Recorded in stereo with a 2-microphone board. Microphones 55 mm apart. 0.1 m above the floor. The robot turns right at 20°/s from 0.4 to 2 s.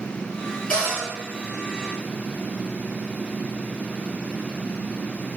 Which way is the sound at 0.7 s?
15° left (ahead or behind).